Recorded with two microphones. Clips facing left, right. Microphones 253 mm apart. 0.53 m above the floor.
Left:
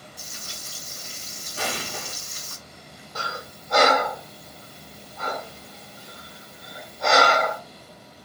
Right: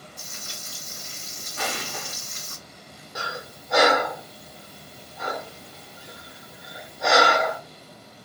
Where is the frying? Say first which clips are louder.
Even; 50° right (ahead or behind), 1.6 m.